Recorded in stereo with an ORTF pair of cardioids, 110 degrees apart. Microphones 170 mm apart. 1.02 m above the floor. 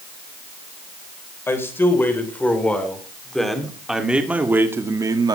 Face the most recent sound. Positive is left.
turn(degrees=-25)